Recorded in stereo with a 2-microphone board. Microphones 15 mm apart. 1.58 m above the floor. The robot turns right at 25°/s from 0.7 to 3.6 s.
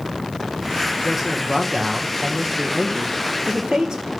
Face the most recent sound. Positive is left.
turn(degrees=-110)